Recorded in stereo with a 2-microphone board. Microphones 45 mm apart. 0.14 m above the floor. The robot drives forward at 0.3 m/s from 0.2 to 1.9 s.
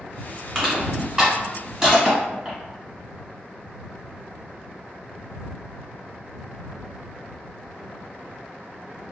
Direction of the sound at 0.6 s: 15° right (ahead or behind).